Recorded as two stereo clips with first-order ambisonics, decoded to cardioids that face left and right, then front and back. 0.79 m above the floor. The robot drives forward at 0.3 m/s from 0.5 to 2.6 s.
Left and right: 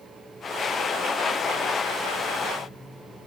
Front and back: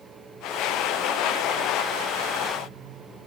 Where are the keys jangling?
No keys jangling in this recording.